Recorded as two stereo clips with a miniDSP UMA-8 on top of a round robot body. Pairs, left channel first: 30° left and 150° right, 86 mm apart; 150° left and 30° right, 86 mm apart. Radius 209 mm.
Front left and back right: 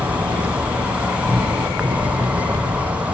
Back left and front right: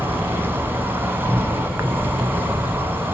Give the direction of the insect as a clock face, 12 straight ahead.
3 o'clock.